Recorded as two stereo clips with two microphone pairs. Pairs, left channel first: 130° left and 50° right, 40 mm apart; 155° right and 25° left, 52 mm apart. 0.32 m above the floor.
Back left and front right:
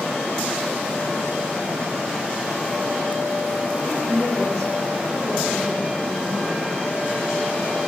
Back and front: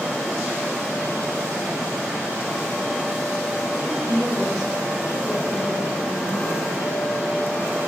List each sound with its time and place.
3.7 s a woman speaking: 45° left, 10 m; by 6.6 s 25° left, 10 m